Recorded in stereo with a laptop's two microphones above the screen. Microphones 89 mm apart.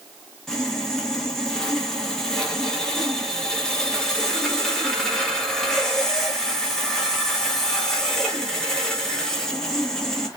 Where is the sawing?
5° left (ahead or behind), 0.6 m.